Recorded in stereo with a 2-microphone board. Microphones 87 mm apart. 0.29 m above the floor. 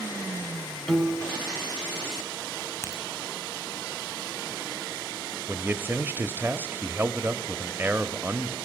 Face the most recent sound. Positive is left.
turn(degrees=-25)  # may be behind; listen again after turning